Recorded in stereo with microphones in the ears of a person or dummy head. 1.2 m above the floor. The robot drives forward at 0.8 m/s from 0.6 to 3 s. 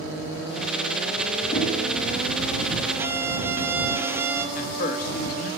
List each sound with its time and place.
1.5 s knocking: 40° left (ahead or behind), 8 m
3.0 s a violin: 10° right (ahead or behind), 1.0 m
4.5 s a man speaking: 50° left (ahead or behind), 2.5 m